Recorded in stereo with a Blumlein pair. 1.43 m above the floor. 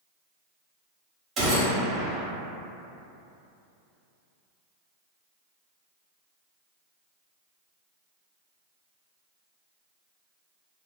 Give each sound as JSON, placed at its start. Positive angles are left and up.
{"t": 1.4, "sound": "a gunshot", "azimuth_deg": -20, "distance_m": 0.9}